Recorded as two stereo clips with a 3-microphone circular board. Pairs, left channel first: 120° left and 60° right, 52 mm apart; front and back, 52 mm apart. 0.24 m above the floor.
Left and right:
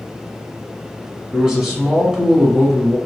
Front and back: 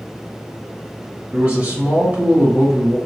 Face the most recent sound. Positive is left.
turn(degrees=-135)